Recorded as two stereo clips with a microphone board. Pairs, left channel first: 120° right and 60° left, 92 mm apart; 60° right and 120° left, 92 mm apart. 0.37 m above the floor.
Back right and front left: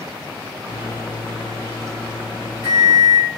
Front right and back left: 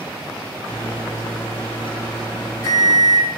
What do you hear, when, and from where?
0.7 s a microwave: 90° right, 1.4 m